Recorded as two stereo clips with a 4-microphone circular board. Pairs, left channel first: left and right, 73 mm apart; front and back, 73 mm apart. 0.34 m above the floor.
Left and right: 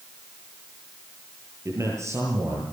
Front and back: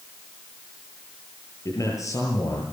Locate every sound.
1.6 s a man speaking: 45° right, 8.5 m